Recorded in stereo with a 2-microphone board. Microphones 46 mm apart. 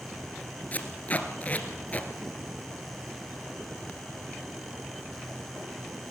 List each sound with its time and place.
0.7 s tape being pulled: 35° left (ahead or behind), 2.0 m